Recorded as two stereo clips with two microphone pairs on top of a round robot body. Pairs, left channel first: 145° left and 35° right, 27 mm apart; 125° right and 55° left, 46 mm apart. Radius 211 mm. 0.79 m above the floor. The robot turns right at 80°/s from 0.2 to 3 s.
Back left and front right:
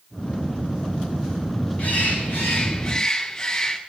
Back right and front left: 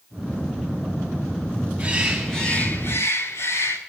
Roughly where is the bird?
Left.